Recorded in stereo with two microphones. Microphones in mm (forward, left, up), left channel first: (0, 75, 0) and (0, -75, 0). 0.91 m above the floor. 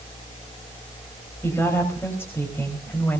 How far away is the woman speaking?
About 4 m.